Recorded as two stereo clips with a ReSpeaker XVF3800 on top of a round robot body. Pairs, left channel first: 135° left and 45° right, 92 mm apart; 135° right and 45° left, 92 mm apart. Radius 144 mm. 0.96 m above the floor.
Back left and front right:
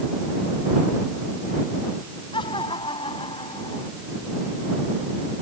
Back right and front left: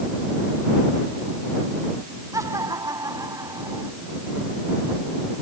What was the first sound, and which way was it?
Laughter, 100° left.